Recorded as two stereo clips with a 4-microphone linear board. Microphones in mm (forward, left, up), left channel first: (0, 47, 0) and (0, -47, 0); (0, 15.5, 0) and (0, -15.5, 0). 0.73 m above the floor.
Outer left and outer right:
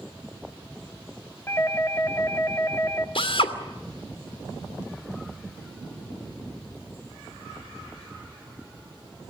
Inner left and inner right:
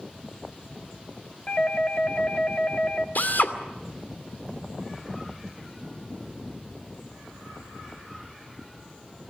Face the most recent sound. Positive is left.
turn(degrees=70)  # may be behind; listen again after turning